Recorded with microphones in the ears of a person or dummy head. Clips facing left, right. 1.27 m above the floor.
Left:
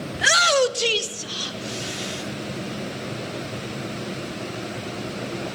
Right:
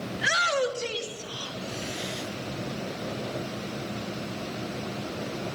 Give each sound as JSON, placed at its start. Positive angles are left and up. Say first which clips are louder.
{"t": 0.1, "sound": "a shout", "louder": "left 8 dB", "side_deg": 50, "distance_m": 0.8}